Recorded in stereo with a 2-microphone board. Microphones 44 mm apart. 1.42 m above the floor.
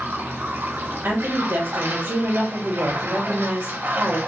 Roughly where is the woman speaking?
Right.